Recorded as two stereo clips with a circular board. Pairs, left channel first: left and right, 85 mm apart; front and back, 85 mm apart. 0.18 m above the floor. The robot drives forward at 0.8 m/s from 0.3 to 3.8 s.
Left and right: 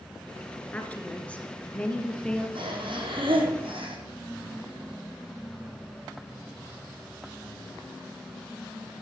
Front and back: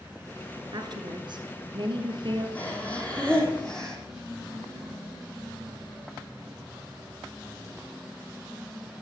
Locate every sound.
0.7 s a woman speaking: 160° left, 2 m; by 2.5 s 170° left, 3.5 m
2.5 s breathing: 75° right, 4.5 m; by 4.0 s 85° right, 4.5 m